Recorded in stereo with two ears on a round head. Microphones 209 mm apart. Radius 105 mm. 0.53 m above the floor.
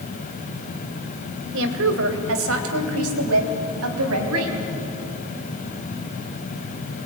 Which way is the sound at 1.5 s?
60° right (ahead or behind).